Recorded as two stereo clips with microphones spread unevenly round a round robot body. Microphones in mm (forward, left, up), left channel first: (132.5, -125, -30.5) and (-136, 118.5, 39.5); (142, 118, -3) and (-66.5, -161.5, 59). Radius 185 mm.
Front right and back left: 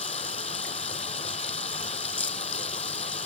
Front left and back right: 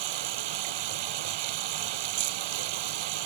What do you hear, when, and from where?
0.0 s running water: 115° right